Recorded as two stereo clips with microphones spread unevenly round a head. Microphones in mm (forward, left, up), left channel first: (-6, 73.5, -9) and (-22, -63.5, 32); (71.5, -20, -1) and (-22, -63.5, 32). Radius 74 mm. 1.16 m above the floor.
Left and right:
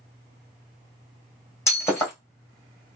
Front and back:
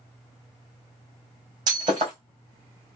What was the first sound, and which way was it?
Breaking glass, 160° left.